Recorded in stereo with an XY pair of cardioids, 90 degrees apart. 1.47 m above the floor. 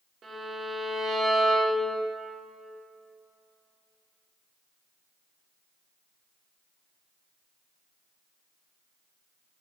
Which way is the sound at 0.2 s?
60° right.